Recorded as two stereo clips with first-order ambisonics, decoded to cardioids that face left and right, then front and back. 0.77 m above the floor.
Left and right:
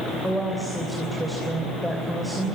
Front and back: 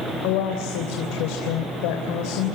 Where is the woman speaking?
Straight ahead, 3 m.